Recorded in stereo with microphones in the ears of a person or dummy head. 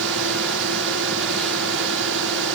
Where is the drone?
70° right (ahead or behind).